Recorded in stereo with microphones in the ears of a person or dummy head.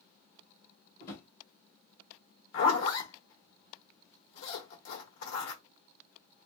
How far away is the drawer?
About 1.2 m.